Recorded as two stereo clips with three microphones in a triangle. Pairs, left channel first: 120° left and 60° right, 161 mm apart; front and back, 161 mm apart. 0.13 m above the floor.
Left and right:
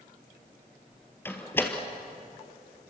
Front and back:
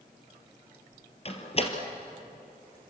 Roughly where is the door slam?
Ahead left.